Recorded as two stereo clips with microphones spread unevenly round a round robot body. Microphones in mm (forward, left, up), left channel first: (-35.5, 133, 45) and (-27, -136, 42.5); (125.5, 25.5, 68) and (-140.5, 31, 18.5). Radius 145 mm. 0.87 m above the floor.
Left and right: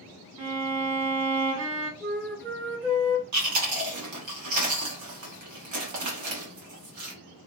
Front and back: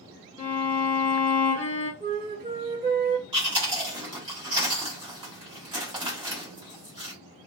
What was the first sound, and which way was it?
A violin, 55° right.